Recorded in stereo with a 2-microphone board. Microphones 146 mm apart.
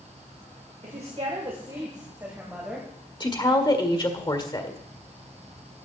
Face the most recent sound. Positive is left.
turn(degrees=30)  # may be behind; listen again after turning